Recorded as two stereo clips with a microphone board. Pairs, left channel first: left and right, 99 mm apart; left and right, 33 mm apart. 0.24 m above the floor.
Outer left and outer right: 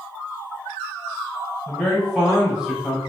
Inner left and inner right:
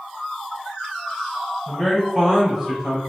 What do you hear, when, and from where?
1.7 s a man speaking: 10° left (ahead or behind), 1.2 m; by 3.0 s 15° right (ahead or behind), 1.0 m